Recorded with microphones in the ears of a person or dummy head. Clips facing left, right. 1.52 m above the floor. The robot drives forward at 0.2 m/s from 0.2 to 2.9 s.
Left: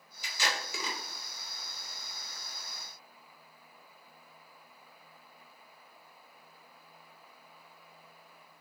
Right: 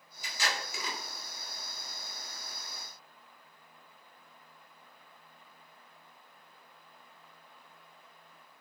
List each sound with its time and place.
0.2 s tape being pulled: 65° left (ahead or behind), 0.8 m; by 1.0 s 75° left (ahead or behind), 0.7 m